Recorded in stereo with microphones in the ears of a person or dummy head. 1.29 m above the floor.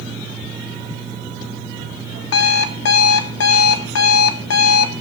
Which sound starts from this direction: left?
An alarm clock, at 2.3 s.